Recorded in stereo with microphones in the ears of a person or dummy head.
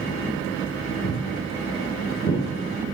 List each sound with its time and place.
1.0 s footsteps: 30° left (ahead or behind), 9.5 m; by 2.4 s 35° left (ahead or behind), 9 m